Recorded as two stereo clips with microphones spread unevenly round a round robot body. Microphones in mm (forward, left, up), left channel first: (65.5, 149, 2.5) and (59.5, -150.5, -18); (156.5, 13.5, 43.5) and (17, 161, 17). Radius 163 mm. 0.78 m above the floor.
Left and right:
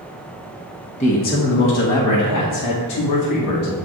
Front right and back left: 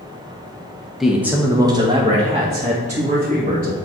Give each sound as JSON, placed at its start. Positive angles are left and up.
{"t": 1.0, "sound": "a man speaking", "azimuth_deg": 65, "distance_m": 1.0}